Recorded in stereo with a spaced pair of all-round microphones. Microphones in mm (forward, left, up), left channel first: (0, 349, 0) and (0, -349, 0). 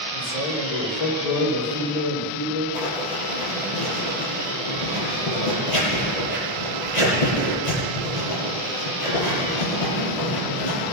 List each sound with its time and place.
0.1 s a man speaking: 65° left (ahead or behind), 3 m
2.7 s writing: 85° left, 8 m